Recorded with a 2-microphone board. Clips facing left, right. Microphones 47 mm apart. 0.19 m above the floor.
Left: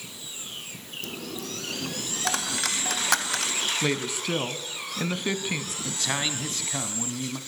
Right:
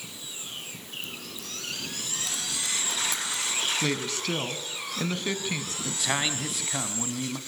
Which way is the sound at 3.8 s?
15° left (ahead or behind).